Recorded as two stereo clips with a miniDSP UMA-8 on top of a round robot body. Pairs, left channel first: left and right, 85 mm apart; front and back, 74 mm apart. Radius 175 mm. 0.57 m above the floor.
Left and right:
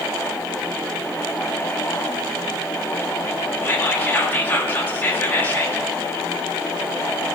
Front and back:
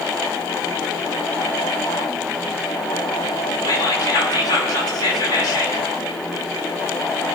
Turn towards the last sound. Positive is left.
turn(degrees=25)